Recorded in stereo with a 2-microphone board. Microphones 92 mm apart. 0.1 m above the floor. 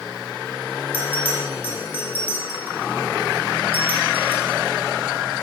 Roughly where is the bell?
Left.